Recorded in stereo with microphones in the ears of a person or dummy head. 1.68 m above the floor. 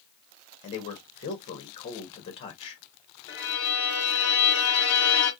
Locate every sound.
0.6 s a man speaking: 35° left (ahead or behind), 1.3 m
3.3 s a violin: 30° left (ahead or behind), 0.8 m